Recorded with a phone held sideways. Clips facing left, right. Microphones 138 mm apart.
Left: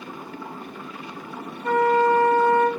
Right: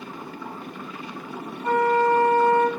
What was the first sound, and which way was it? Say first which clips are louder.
A flute: left 1 dB; 30° right (ahead or behind).